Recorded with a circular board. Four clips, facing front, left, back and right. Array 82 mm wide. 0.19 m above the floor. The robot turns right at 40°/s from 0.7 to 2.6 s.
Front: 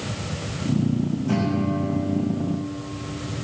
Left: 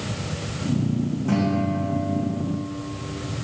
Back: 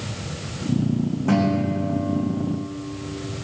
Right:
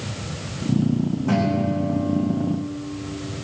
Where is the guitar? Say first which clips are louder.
Right 1 dB, back 4 dB; 170° right, 5.5 m; by 2.6 s 115° right, 5.5 m.